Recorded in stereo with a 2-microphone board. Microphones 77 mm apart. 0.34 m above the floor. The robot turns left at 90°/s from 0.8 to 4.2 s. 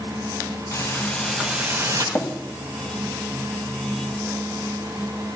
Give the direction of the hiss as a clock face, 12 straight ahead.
11 o'clock.